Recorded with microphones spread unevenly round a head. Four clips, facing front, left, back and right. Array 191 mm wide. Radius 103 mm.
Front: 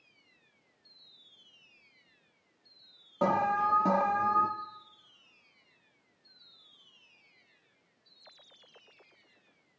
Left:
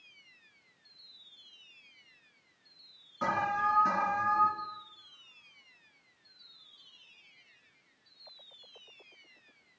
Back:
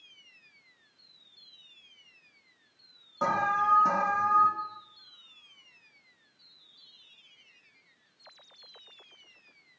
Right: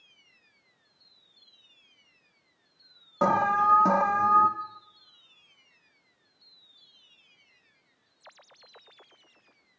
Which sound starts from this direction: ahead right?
An alarm, at 3.2 s.